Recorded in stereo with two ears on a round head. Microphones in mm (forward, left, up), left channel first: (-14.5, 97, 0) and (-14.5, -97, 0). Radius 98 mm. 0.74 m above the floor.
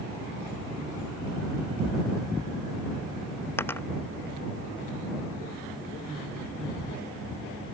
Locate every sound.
3.6 s a dropped coin: 10° left (ahead or behind)